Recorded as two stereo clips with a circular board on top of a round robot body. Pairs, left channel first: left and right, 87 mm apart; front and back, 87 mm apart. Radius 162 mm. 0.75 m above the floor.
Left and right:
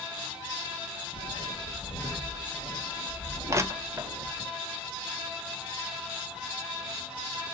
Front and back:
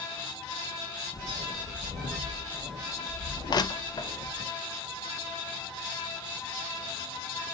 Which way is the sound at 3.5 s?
35° right.